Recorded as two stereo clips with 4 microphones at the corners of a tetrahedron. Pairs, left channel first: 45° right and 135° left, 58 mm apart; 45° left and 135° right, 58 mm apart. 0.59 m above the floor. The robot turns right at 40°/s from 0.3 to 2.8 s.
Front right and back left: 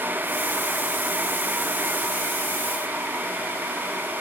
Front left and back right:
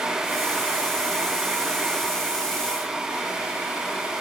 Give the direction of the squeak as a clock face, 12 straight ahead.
No squeak in this recording.